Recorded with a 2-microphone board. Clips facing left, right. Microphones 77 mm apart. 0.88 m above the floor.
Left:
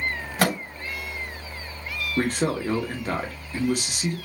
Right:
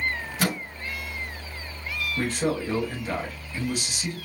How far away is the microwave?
About 1.5 m.